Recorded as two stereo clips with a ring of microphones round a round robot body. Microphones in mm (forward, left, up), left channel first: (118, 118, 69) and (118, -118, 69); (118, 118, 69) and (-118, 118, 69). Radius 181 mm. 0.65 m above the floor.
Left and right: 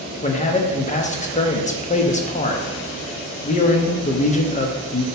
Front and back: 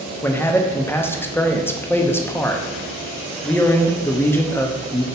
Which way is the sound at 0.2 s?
75° left.